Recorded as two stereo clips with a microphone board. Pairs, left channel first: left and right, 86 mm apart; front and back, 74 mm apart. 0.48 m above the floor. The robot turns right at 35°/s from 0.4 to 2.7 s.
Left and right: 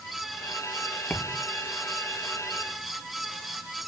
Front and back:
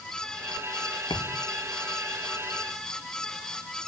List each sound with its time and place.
1.1 s a thud: 15° left; by 1.5 s 30° left